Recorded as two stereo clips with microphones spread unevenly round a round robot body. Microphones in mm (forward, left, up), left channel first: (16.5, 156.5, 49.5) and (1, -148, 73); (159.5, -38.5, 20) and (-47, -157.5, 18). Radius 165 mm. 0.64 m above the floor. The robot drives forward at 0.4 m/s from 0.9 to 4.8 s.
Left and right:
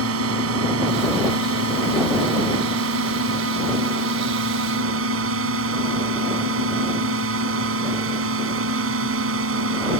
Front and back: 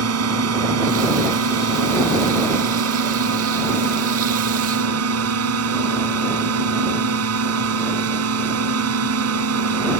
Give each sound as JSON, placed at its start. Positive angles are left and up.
{"t": 0.0, "sound": "a drone", "azimuth_deg": -140}